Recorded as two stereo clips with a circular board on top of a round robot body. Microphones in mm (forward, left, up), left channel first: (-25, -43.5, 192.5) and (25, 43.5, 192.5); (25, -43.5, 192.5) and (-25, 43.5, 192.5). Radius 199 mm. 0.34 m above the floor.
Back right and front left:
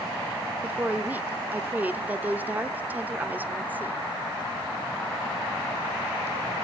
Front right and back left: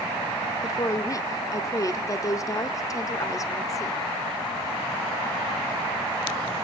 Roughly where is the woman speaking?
Ahead.